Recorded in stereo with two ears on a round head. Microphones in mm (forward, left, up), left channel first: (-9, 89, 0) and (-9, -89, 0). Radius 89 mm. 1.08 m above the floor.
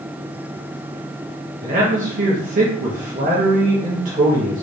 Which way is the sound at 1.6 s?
40° right (ahead or behind).